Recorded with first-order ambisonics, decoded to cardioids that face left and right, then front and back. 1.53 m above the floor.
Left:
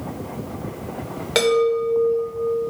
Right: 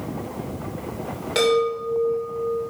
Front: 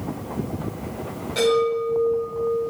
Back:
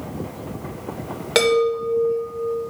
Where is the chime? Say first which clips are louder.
Left 2 dB, back 2 dB; 155° left, 3 m.